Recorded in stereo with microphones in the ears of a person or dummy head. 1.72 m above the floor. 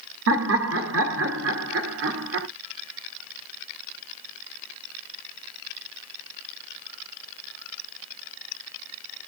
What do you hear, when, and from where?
0.3 s laughter: 60° right (ahead or behind), 1.2 m